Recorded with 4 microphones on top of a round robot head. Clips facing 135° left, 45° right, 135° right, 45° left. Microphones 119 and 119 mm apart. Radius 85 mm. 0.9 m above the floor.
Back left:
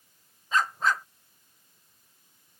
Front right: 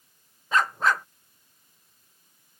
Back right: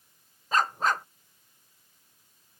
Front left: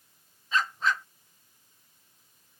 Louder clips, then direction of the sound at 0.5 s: Front right 3 dB, back right 3 dB; 80° right.